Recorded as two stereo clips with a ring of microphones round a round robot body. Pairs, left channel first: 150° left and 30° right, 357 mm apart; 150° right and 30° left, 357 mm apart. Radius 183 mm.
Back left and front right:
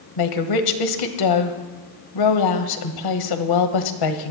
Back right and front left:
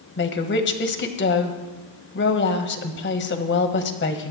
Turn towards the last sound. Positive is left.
turn(degrees=155)